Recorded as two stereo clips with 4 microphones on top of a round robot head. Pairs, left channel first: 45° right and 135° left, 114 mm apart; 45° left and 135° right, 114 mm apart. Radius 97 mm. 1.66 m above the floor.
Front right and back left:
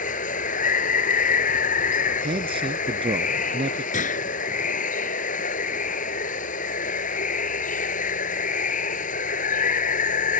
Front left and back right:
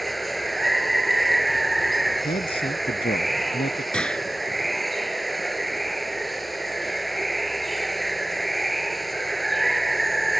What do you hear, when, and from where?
0.0 s running water: 45° right
2.2 s a man speaking: 90° left
3.9 s a gunshot: 35° right